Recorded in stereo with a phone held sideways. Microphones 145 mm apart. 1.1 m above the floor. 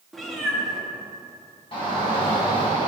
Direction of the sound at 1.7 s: 35° left (ahead or behind).